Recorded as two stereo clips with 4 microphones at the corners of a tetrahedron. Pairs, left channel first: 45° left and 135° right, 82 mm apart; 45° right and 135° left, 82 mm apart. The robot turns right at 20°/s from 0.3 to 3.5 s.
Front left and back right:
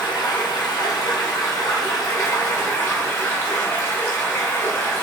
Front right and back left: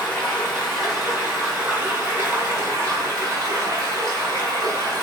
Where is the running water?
40° left, 1.6 m; by 5.0 s 100° left, 1.6 m.